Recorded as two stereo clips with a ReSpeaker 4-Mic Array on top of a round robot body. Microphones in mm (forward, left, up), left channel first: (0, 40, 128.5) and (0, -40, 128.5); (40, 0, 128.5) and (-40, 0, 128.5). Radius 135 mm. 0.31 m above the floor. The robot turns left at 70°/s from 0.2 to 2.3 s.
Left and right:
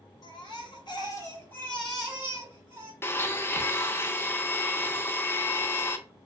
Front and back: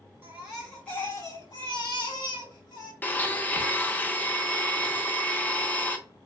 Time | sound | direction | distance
0.2 | a baby crying | 115° left | 1.9 m
3.0 | a blender | 55° left | 0.7 m